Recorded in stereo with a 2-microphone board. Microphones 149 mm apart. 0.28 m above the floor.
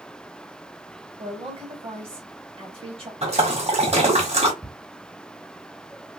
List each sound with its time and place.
1.2 s a woman speaking: 40° right (ahead or behind), 1.8 m
3.2 s a splash: 45° right (ahead or behind), 1.5 m
4.6 s ticking: centre (ahead or behind), 1.5 m